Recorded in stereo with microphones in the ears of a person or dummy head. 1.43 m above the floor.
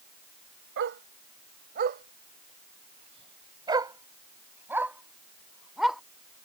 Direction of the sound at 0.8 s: 75° right (ahead or behind).